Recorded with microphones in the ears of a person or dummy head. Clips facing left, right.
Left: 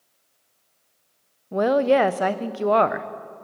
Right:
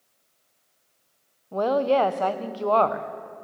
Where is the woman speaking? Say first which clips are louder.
Left 3 dB; 25° left (ahead or behind), 0.6 m.